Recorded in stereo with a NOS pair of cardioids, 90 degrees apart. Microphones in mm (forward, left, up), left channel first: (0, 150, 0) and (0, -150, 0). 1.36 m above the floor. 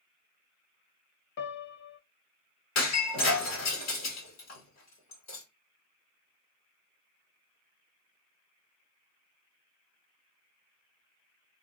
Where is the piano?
45° left, 0.7 m.